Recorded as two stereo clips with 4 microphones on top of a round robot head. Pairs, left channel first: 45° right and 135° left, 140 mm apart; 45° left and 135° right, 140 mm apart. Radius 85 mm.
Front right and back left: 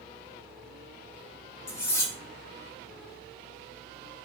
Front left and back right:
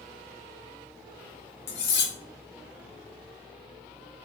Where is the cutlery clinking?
30° left, 1.0 m.